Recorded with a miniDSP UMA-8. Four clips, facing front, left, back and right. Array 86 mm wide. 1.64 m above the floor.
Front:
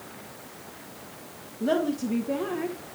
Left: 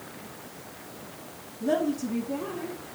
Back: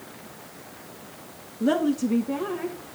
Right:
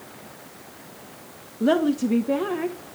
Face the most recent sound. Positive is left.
turn(degrees=-80)